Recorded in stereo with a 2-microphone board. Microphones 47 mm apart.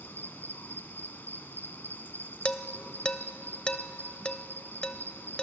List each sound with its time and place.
0.0 s an insect: 50° left (ahead or behind), 1.2 m
2.5 s dishes clattering: 20° left (ahead or behind), 0.6 m